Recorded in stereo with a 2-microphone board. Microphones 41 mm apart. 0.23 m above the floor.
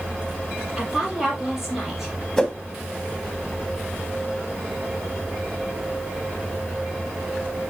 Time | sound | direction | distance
0.8 | a woman speaking | 10° right (ahead or behind) | 5 m
2.4 | a whoosh | 10° left (ahead or behind) | 1.2 m